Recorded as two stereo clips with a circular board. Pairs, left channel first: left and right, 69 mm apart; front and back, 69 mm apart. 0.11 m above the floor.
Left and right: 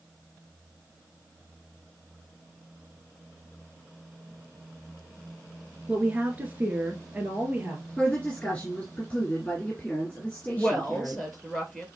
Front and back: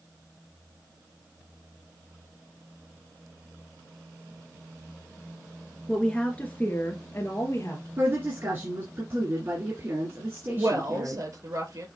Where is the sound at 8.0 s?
155° left, 2 m.